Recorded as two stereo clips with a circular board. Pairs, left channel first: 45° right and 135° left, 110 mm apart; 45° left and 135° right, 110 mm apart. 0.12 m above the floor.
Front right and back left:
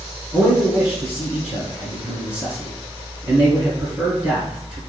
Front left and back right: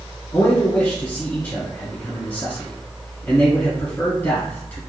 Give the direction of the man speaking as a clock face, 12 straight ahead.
10 o'clock.